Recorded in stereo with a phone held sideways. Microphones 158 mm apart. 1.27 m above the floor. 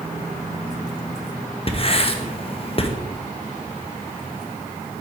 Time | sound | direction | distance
1.7 | writing | 40° left (ahead or behind) | 1.1 m